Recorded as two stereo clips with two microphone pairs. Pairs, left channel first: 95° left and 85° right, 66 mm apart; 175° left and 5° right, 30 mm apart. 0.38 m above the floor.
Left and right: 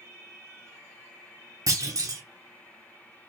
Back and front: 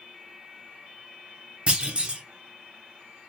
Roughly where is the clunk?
Ahead right.